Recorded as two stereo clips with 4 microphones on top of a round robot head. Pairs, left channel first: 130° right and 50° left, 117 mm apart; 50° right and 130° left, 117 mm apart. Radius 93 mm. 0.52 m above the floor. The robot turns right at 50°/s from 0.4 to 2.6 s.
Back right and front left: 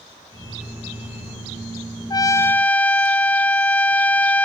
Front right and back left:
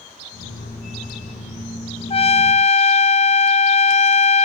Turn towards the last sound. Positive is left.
turn(degrees=-50)